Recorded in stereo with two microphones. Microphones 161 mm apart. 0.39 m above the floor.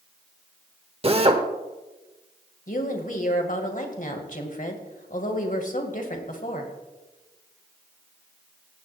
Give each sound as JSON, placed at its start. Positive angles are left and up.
{"t": 1.0, "sound": "a drill", "side_deg": -35, "distance_m": 1.1}
{"t": 2.7, "sound": "a woman speaking", "side_deg": 55, "distance_m": 1.9}